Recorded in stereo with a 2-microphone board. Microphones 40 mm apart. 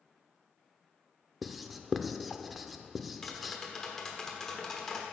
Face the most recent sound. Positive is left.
turn(degrees=10)  # may be behind; listen again after turning